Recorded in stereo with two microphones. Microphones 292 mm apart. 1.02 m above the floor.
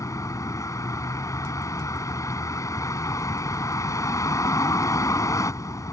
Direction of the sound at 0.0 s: 10° left (ahead or behind).